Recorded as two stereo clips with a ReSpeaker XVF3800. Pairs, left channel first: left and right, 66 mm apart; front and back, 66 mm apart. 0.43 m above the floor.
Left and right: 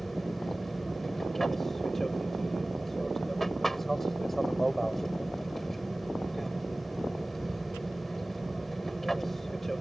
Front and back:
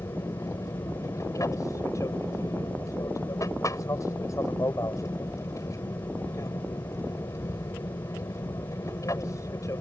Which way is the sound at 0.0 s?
5° left.